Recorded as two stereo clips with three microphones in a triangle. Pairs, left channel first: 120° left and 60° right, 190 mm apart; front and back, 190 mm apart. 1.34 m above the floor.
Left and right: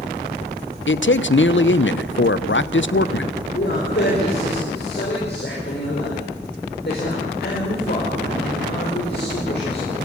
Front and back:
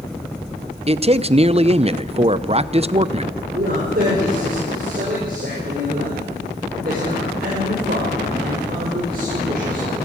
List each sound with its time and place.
0.9 s a man speaking: 120° left, 0.7 m
3.5 s a man speaking: 145° left, 5.5 m